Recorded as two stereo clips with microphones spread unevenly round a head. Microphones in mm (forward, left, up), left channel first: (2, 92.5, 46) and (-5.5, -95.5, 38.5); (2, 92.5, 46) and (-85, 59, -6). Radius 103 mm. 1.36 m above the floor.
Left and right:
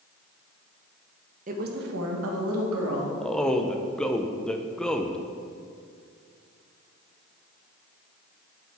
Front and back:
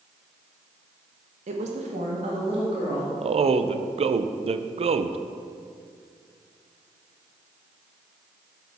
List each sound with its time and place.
1.5 s a woman speaking: 145° right, 1.1 m; by 3.1 s 90° right, 2.5 m
3.2 s a man speaking: 175° left, 0.6 m